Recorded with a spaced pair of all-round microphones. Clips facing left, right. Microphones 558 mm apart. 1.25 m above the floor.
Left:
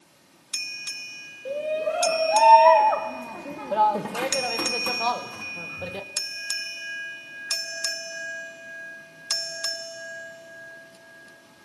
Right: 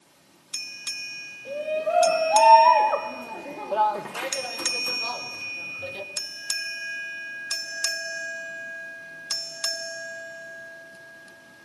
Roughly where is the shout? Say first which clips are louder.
Left 1 dB; centre.